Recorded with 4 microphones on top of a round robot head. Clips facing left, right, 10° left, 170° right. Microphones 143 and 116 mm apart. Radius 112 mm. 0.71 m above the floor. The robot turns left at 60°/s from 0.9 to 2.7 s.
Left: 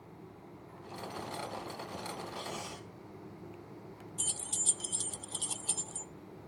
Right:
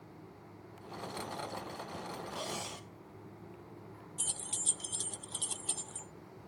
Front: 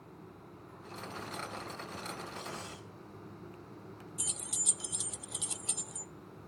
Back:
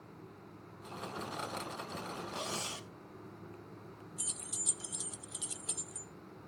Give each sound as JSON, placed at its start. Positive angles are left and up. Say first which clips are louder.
{"t": 2.3, "sound": "cutlery clinking", "louder": "even, back 3 dB", "azimuth_deg": -135, "distance_m": 0.5}
{"t": 4.2, "sound": "keys jangling", "louder": "left 2 dB, front 2 dB", "azimuth_deg": 5, "distance_m": 0.5}